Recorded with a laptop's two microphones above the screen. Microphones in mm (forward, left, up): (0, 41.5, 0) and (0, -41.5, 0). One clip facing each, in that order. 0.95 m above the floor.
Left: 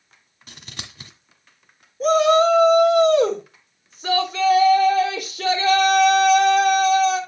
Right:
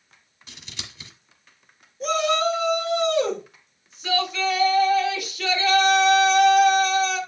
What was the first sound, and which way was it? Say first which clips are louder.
Scissors: left 3 dB; 55° left (ahead or behind).